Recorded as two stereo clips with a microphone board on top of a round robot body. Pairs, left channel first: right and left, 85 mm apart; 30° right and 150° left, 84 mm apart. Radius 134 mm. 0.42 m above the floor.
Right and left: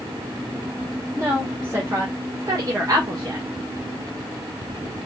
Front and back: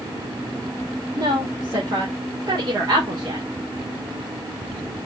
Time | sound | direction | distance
1.1 | a woman speaking | 150° left | 2.5 m